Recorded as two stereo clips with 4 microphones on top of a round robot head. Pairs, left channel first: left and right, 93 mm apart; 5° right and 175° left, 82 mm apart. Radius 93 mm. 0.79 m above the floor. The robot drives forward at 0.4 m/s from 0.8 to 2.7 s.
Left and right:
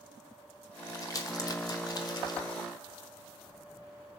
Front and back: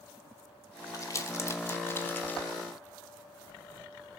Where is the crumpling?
40° left, 1.5 m; by 2.4 s 60° left, 1.2 m.